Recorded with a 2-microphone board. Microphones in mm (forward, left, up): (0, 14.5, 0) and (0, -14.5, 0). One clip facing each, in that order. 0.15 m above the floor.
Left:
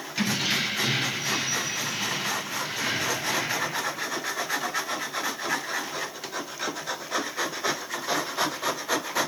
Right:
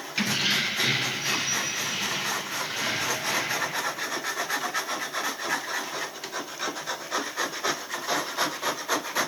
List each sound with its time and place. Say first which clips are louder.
0.2 s keys jangling: right 1 dB; 20° right (ahead or behind), 0.9 m; by 3.7 s 25° right (ahead or behind), 4.5 m